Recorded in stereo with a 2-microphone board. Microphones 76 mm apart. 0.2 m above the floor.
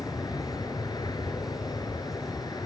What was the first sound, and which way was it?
An aircraft, 60° left (ahead or behind).